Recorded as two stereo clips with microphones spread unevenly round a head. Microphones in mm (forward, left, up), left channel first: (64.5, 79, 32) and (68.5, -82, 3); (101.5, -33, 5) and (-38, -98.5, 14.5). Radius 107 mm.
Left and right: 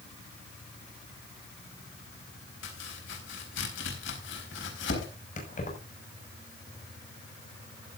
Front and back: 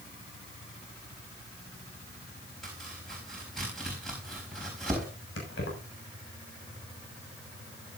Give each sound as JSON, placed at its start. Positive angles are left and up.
{"t": 2.6, "sound": "chopping", "azimuth_deg": 115, "distance_m": 4.5}
{"t": 5.4, "sound": "keys jangling", "azimuth_deg": 50, "distance_m": 6.0}